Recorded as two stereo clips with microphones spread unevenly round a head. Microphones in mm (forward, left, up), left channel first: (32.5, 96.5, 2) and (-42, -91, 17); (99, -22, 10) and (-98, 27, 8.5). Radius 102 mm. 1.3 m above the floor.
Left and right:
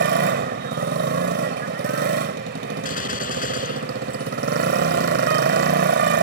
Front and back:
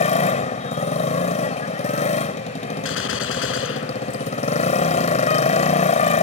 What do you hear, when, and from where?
0.0 s a motorcycle: 70° right
2.9 s a gunshot: 15° left